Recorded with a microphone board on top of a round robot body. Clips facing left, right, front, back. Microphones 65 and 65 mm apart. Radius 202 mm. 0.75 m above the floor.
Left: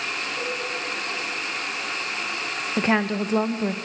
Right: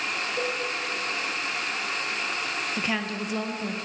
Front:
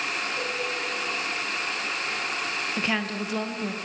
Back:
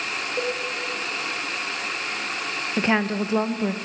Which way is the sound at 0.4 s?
140° right.